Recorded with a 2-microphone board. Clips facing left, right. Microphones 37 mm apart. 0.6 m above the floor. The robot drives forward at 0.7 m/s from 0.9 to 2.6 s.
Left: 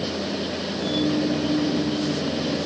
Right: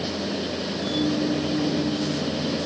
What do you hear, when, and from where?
Only background noise.